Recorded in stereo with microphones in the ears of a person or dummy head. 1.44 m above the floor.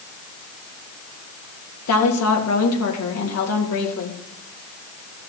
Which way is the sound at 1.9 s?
85° left.